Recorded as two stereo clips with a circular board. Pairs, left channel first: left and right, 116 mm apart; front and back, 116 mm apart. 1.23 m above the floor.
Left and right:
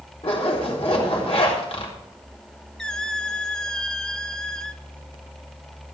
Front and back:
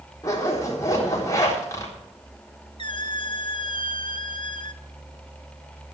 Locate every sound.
0.2 s a zipper: 60° left, 3.5 m
2.8 s a squeak: 10° left, 0.8 m